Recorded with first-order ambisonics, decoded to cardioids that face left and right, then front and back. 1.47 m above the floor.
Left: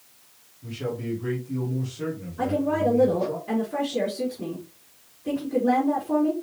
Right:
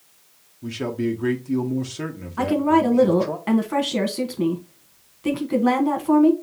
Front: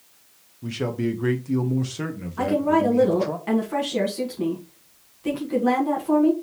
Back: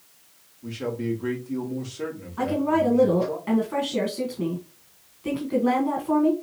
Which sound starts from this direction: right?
A woman speaking, at 2.4 s.